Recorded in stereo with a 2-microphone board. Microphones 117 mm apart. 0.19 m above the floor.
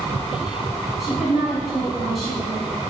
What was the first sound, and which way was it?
A woman speaking, centre (ahead or behind).